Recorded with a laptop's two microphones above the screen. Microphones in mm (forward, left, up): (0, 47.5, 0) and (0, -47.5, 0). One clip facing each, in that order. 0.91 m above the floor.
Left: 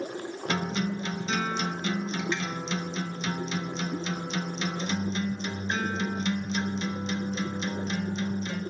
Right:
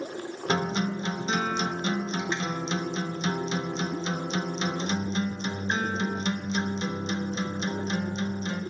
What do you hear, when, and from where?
0.5 s a guitar: 25° right (ahead or behind), 0.9 m